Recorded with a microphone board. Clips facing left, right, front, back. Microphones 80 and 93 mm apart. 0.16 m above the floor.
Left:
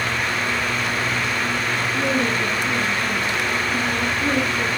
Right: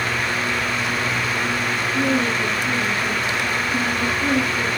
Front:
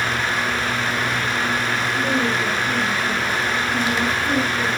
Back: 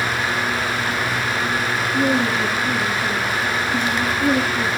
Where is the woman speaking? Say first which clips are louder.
Right 2 dB, back 4 dB; 155° right, 3.5 m.